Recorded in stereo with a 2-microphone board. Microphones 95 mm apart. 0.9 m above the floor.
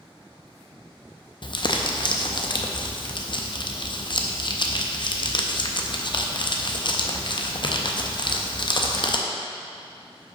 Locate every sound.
1.4 s crumpling: 50° left (ahead or behind), 0.5 m